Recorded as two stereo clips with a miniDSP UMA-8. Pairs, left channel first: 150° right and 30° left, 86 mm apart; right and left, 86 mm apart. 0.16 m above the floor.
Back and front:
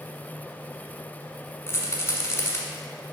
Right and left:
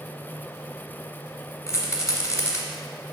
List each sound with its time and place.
1.7 s a rattle: 115° right, 1.3 m